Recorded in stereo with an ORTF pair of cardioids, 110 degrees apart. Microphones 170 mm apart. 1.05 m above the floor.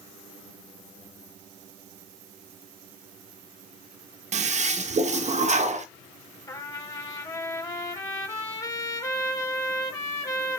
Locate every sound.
4.3 s a toilet flushing: 45° right, 1.2 m
6.5 s a trumpet: 20° left, 5 m